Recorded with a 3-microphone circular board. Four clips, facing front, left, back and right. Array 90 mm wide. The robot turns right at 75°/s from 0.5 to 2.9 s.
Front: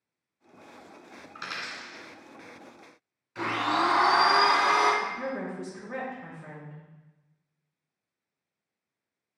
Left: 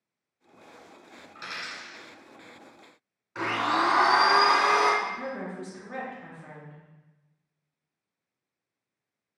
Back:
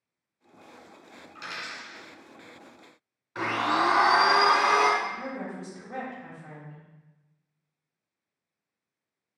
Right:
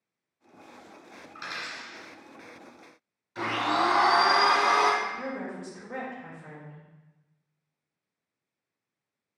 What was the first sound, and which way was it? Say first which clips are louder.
A dropped coin: right 1 dB, front 1 dB; 25° right.